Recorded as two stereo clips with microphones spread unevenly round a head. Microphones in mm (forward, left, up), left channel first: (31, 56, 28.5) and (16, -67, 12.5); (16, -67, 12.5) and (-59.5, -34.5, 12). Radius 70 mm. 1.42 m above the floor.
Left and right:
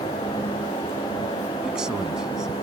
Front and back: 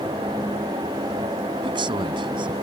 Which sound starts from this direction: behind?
A man speaking, at 1.6 s.